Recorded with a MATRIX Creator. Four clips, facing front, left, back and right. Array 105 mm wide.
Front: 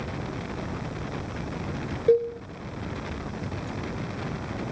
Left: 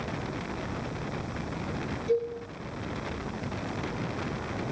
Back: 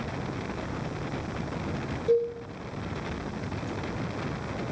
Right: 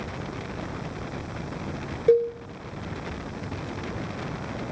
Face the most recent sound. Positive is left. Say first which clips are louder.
# right 8 dB, front 3 dB
turn(degrees=-60)